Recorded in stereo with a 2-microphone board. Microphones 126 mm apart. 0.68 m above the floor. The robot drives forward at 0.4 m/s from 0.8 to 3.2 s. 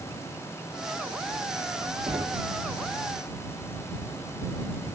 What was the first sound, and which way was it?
Knocking, 40° right (ahead or behind).